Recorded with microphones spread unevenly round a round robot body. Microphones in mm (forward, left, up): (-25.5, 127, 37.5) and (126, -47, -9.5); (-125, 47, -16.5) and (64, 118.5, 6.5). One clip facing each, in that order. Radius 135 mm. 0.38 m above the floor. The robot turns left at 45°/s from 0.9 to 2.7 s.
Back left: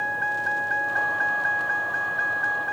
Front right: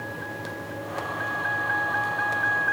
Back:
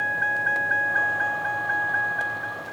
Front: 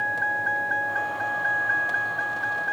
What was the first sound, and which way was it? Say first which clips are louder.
A vehicle: even, even; 145° left.